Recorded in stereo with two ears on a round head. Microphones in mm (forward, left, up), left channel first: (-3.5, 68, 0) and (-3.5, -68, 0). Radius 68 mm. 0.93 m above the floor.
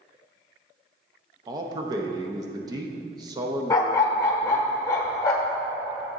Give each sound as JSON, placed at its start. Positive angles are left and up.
{"t": 1.5, "sound": "a man speaking", "side_deg": -25, "distance_m": 0.7}
{"t": 3.7, "sound": "a dog barking", "side_deg": 20, "distance_m": 0.9}